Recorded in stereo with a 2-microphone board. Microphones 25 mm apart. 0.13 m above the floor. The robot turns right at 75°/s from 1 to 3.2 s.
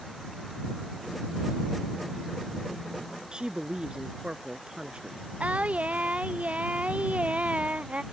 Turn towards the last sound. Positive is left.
turn(degrees=-55)  # may be behind; listen again after turning